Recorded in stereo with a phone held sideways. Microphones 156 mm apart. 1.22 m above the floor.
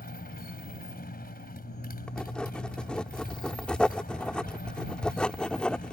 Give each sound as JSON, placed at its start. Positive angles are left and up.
{"t": 0.0, "sound": "a motorcycle", "side_deg": 75}
{"t": 2.1, "sound": "writing", "side_deg": 5}